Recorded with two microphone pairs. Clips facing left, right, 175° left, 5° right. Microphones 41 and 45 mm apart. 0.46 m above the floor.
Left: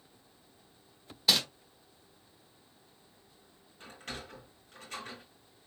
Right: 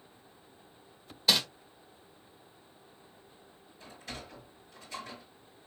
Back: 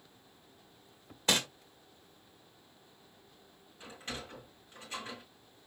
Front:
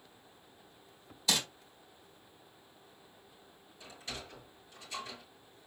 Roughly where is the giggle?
I don't hear a giggle.